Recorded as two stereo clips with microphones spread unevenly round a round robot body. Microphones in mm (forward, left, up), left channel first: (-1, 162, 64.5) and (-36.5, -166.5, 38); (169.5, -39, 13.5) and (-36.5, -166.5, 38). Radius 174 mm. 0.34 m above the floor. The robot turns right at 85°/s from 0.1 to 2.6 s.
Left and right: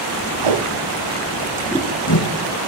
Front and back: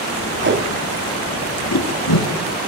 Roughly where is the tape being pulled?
Right.